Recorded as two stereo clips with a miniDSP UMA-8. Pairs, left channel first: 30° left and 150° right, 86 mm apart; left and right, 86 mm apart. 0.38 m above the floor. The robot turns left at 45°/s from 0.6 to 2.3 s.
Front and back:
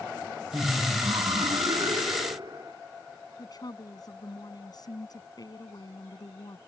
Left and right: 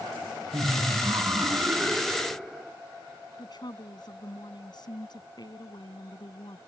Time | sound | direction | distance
0.5 | laughter | 105° right | ?
3.4 | a woman speaking | 65° left | ?